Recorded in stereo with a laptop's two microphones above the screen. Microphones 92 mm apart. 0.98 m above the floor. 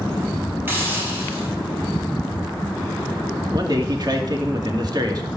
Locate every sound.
0.7 s a hiss: 25° right (ahead or behind), 5.5 m
3.5 s a man speaking: 45° right (ahead or behind), 2.5 m